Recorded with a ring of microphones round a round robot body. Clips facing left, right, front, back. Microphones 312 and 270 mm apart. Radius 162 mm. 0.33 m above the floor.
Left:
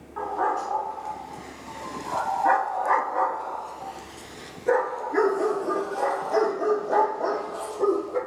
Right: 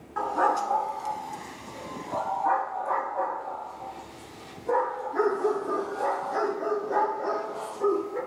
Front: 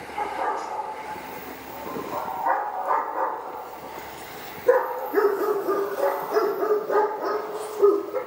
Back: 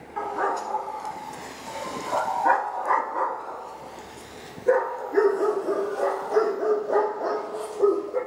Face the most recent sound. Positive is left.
turn(degrees=80)